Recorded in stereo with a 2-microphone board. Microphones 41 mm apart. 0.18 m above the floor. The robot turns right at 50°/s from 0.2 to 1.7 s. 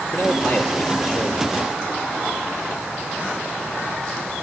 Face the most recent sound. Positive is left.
turn(degrees=-155)